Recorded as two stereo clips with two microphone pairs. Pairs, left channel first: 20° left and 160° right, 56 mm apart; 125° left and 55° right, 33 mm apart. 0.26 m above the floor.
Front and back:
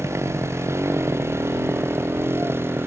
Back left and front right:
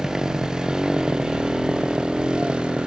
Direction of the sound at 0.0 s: 125° right.